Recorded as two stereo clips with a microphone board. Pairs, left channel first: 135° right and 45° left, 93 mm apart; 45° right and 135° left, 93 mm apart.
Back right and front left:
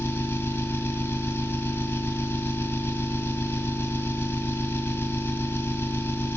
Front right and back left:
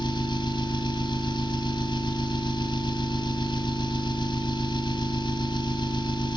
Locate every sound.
0.0 s an engine running: 70° right, 2 m